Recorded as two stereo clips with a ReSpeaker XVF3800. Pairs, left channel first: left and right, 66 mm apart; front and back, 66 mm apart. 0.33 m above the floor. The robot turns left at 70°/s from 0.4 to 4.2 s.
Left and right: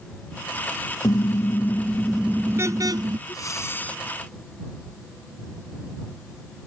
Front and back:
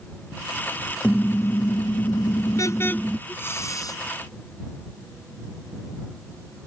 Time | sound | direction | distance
1.0 | a car horn | 70° left | ?
3.3 | breathing | 65° left | ?